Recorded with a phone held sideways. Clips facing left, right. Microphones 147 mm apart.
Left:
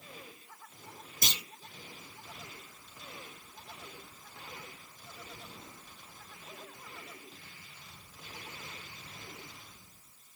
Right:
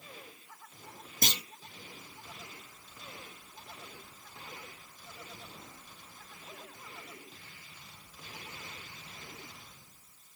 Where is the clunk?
55° right (ahead or behind), 1.4 m.